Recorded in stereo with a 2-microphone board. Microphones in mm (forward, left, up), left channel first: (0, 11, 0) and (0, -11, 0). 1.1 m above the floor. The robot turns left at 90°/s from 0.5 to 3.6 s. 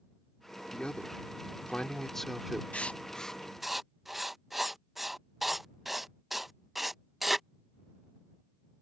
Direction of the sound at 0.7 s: 145° left.